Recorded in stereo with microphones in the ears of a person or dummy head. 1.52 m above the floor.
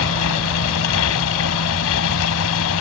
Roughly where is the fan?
Left.